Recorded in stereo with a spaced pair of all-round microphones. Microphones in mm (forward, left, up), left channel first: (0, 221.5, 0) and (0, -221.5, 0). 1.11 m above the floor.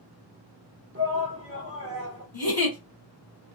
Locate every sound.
0.9 s a shout: 30° right (ahead or behind), 1.0 m
2.3 s a giggle: 55° left (ahead or behind), 1.4 m